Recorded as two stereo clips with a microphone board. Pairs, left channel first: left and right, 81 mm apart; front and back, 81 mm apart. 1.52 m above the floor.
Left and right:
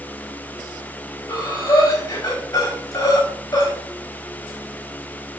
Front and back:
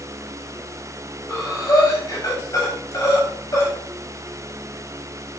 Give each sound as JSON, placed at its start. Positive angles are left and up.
{"t": 1.3, "sound": "breathing", "azimuth_deg": 50, "distance_m": 7.5}